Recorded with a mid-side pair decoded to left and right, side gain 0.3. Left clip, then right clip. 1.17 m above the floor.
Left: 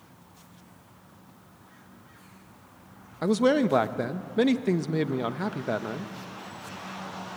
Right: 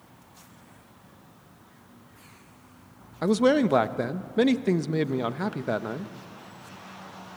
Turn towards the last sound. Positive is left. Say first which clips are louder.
# right 1 dB
turn(degrees=-15)